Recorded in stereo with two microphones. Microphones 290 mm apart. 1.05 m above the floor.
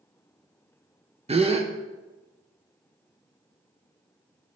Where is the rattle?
No rattle in this recording.